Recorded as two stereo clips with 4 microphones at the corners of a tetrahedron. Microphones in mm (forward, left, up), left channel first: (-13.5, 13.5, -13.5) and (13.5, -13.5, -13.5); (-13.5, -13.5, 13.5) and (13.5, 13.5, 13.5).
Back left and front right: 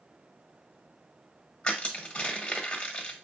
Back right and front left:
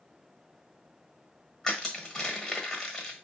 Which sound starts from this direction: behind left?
Crushing, at 1.6 s.